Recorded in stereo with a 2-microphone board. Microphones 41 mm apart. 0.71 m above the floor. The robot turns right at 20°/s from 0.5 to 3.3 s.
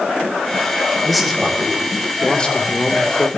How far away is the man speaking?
About 1.8 m.